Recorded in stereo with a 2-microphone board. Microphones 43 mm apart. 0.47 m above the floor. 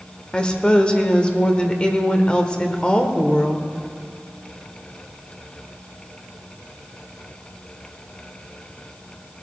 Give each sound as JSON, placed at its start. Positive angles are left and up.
{"t": 0.3, "sound": "a woman speaking", "side_deg": 20, "distance_m": 1.4}